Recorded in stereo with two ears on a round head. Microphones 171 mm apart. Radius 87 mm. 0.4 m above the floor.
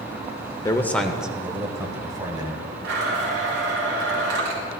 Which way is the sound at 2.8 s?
65° right (ahead or behind).